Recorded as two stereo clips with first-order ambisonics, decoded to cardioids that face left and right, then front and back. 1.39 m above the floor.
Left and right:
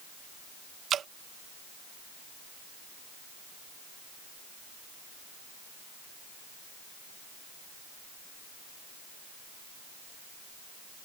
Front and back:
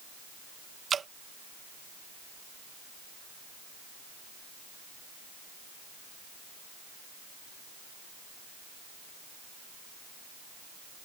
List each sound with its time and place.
0.9 s dripping: 125° right